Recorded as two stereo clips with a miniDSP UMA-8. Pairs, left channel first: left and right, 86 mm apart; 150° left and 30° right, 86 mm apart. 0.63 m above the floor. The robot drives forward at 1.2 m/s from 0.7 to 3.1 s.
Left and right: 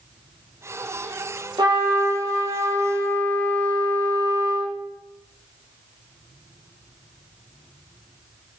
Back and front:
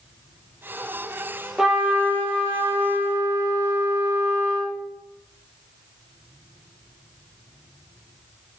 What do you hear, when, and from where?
1.6 s a trumpet: 115° right, 2.5 m; by 4.8 s 140° right, 3.5 m